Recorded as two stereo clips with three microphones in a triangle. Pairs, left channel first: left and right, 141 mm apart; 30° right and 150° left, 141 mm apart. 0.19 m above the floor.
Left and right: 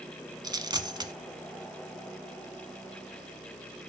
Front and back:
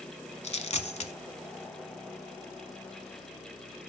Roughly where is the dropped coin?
Ahead right.